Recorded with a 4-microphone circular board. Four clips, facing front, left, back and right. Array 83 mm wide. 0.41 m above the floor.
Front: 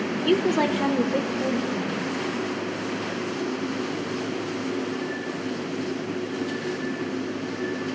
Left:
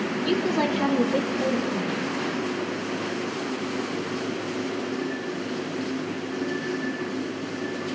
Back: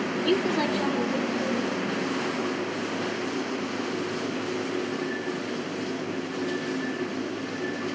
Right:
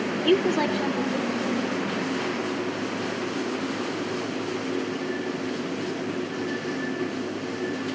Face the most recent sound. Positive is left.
turn(degrees=70)